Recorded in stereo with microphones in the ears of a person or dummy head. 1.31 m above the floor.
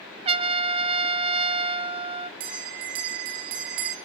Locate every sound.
0.2 s a trumpet: 35° right (ahead or behind), 0.6 m
2.4 s a bell: 45° right (ahead or behind), 1.0 m